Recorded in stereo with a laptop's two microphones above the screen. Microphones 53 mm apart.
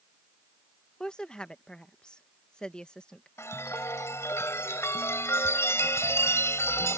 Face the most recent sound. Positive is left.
turn(degrees=60)  # may be behind; listen again after turning